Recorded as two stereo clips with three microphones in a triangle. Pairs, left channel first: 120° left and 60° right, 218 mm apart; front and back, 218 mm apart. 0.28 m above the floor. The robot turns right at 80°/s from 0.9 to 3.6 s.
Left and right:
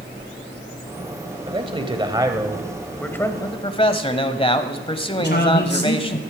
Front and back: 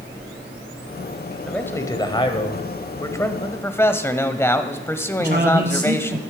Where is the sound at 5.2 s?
145° left, 1.9 m.